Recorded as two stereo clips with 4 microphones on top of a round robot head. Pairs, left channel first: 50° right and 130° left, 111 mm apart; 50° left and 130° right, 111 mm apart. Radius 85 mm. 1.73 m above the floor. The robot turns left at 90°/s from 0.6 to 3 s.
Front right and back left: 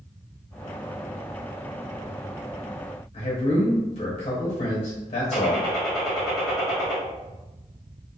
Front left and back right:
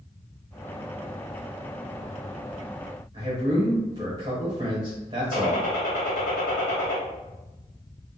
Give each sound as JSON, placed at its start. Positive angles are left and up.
{"t": 3.1, "sound": "a man speaking", "azimuth_deg": -80, "distance_m": 0.9}
{"t": 5.3, "sound": "a gunshot", "azimuth_deg": 40, "distance_m": 1.0}